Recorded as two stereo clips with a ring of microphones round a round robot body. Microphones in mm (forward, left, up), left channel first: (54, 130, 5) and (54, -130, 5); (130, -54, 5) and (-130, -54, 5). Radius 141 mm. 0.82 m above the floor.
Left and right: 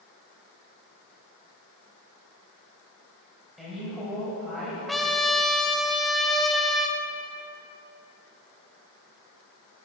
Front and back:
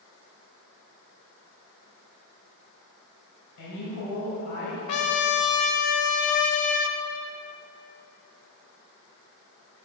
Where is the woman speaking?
Straight ahead, 4 m.